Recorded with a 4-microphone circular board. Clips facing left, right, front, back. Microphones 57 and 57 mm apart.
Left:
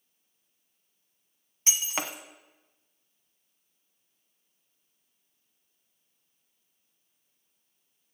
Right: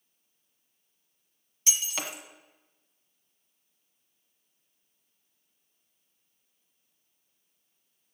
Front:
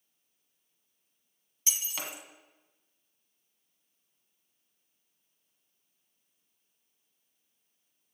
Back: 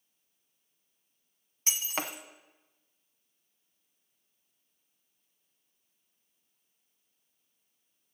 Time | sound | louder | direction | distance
1.7 | breaking glass | left 2 dB, back 4 dB | 140° left | 0.9 m